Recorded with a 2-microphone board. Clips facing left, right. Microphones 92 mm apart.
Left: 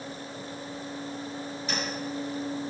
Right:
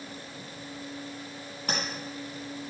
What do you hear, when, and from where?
1.7 s tapping: 60° right (ahead or behind), 4 m